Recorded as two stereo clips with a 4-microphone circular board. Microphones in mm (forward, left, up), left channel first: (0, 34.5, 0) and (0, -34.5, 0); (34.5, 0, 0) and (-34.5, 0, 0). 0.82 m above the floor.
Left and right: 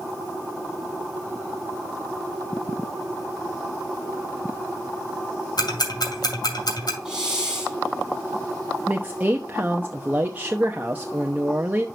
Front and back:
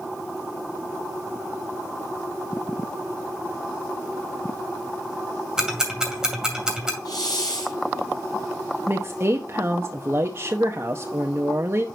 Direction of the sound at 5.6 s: 100° left.